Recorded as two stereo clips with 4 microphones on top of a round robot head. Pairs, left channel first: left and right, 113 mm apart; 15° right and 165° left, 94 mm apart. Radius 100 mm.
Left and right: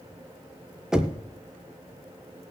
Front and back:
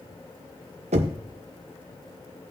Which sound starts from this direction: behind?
Knocking, at 0.9 s.